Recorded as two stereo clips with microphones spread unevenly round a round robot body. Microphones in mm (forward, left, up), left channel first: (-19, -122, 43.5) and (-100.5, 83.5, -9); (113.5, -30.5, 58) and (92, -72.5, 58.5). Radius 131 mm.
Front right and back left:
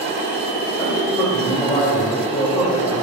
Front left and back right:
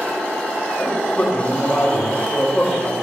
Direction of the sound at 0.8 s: 5° left.